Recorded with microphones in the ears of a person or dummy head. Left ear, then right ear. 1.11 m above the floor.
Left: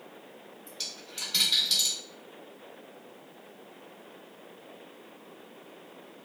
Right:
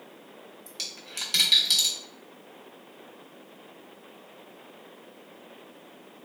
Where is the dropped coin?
35° right (ahead or behind), 0.7 m.